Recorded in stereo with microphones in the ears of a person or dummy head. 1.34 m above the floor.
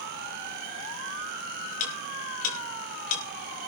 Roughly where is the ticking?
Left.